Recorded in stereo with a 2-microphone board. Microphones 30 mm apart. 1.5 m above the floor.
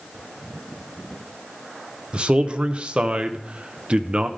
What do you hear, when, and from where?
2.1 s a man speaking: 40° right (ahead or behind), 0.6 m